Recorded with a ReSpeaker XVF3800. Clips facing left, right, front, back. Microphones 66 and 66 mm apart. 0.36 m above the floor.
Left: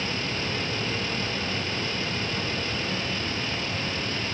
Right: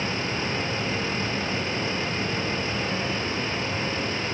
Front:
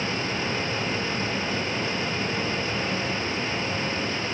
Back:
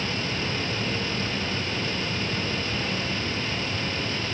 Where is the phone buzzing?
I don't hear a phone buzzing.